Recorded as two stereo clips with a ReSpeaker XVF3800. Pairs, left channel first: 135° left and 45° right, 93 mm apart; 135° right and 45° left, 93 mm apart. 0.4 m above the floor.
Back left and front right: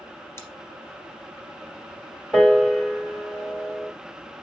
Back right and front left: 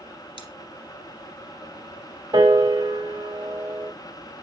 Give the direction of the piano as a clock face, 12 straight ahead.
10 o'clock.